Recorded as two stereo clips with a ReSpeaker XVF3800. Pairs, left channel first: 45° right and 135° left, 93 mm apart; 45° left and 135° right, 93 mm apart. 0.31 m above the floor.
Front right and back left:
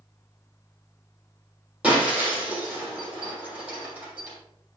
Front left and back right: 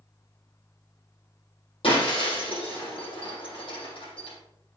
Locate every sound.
1.8 s breaking glass: 60° left, 6.5 m